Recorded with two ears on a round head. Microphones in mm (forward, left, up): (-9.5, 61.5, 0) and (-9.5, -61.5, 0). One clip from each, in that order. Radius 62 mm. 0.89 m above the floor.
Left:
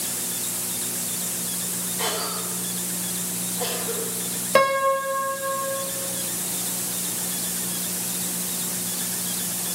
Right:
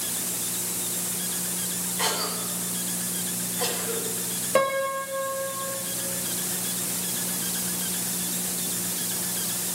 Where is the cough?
15° right (ahead or behind), 4 m.